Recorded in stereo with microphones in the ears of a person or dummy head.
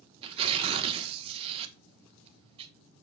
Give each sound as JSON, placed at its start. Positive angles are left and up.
{"t": 0.2, "sound": "tearing paper", "side_deg": -35, "distance_m": 1.2}